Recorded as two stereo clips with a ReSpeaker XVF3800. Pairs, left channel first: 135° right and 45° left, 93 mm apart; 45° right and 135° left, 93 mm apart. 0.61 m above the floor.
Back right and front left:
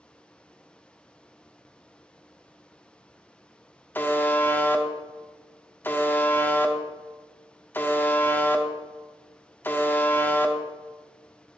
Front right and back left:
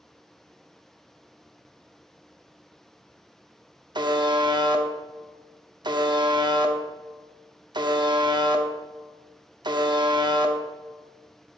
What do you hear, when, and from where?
4.0 s a buzzer: 160° left, 0.6 m